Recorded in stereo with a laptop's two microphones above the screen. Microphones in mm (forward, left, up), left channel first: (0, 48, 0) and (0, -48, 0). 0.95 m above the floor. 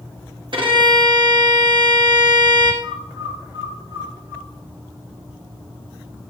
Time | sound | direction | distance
0.5 | a violin | 55° right (ahead or behind) | 1.4 m
2.8 | a bird | 40° right (ahead or behind) | 4 m